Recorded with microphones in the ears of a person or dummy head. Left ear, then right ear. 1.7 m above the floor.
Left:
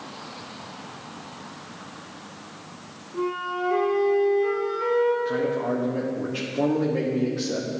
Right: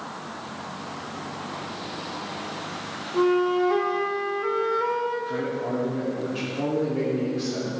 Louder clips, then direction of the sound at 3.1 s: Right 6 dB; 50° right (ahead or behind).